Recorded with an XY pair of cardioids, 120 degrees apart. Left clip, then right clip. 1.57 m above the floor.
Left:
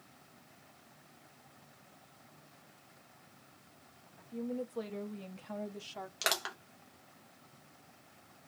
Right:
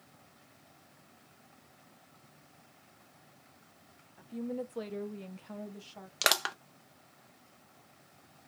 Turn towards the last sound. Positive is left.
turn(degrees=-40)